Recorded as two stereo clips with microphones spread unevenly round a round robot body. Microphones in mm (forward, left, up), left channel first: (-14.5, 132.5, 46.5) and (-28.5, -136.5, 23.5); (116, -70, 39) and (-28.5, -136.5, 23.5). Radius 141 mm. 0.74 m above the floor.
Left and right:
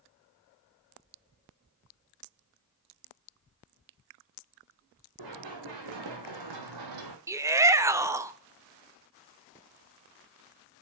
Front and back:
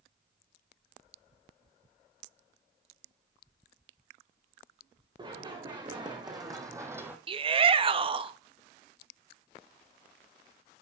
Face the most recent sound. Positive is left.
turn(degrees=-160)